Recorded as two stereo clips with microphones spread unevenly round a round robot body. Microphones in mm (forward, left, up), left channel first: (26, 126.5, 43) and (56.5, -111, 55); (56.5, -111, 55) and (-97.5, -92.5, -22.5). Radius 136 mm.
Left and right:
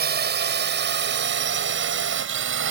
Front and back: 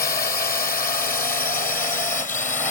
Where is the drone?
45° right; by 2.7 s 60° right.